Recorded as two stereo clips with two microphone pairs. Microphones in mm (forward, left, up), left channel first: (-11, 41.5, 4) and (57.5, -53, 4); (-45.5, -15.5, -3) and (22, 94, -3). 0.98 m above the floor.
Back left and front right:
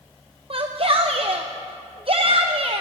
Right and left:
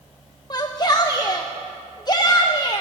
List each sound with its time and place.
0.5 s a shout: 70° right, 0.6 m